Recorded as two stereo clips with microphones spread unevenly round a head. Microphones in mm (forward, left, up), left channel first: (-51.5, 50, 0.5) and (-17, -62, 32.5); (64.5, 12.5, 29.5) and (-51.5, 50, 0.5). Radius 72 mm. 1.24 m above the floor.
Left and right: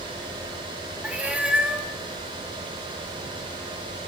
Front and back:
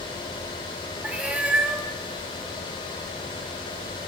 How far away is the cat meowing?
About 0.7 m.